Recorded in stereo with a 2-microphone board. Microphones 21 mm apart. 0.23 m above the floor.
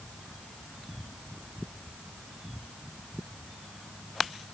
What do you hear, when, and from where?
Only background noise.